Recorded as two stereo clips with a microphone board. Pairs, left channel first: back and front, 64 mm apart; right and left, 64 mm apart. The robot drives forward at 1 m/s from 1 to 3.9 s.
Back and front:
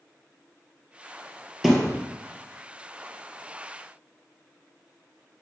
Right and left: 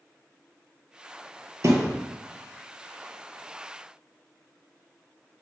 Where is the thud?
90° left, 1.9 m; by 2.0 s 100° left, 1.9 m.